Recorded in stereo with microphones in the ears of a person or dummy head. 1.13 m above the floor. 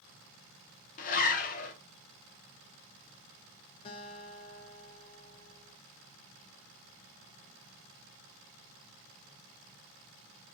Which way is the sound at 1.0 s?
40° left (ahead or behind).